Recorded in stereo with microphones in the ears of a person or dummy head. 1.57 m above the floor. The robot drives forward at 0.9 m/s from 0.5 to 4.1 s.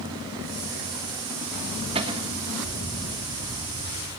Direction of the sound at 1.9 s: 30° right (ahead or behind).